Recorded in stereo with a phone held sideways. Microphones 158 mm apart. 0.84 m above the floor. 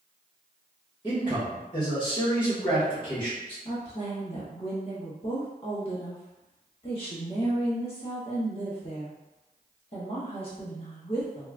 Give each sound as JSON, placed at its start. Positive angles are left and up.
{"t": 1.0, "sound": "a man speaking", "side_deg": 30, "distance_m": 1.1}
{"t": 3.6, "sound": "a woman speaking", "side_deg": 40, "distance_m": 1.2}